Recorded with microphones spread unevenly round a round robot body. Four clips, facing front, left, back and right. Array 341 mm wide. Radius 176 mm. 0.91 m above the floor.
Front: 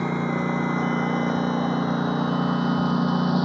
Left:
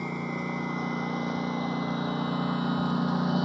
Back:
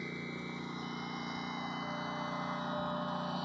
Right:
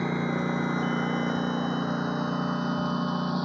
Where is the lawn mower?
20° right; by 3.5 s 10° left.